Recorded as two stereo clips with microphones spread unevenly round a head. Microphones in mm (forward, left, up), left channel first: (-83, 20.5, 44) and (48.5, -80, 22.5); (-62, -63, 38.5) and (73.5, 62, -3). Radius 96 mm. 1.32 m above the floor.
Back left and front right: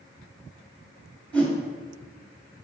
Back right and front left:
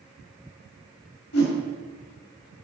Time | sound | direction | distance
1.3 | a whoosh | 135° right | 2 m